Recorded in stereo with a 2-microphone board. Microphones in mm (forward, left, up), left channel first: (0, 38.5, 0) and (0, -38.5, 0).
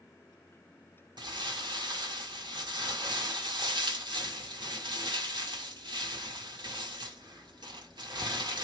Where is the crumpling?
75° right (ahead or behind), 1.5 m.